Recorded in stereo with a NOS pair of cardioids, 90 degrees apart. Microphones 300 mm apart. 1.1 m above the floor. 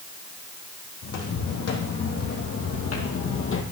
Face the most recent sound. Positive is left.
turn(degrees=50)